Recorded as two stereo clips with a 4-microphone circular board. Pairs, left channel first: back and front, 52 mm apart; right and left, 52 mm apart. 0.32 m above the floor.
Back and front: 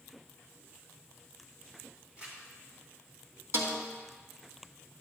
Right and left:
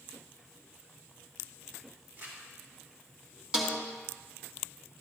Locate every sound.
2.2 s crumpling: 65° left, 4.5 m
3.5 s a snare drum: 15° left, 2.5 m